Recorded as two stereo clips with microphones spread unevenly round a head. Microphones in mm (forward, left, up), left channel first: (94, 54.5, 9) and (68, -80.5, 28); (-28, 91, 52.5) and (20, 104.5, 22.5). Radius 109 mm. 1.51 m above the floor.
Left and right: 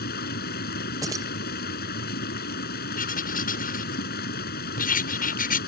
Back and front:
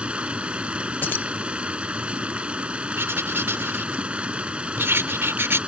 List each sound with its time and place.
0.0 s running water: 85° left
1.0 s keys jangling: 170° right
3.0 s writing: 65° left